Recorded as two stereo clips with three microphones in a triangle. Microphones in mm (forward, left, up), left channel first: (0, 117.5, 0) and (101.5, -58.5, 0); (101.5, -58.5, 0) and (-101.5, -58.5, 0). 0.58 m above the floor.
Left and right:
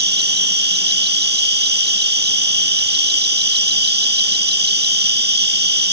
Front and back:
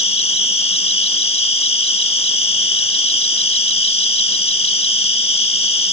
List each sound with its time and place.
0.0 s an insect: 55° right